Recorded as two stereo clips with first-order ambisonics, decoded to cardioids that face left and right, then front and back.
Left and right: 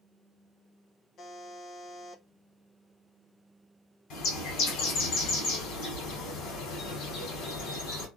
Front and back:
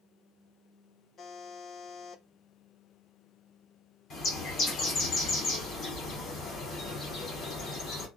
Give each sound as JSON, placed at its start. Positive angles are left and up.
{"t": 1.2, "sound": "a buzzer", "azimuth_deg": 45, "distance_m": 0.5}
{"t": 4.1, "sound": "a bird", "azimuth_deg": 55, "distance_m": 1.5}